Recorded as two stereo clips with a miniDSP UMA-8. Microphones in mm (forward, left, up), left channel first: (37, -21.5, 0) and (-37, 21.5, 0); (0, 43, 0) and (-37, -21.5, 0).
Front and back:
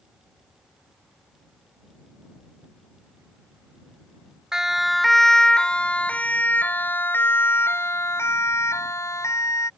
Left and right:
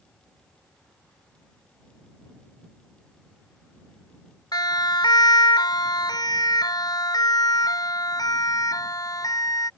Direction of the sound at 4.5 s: 65° left.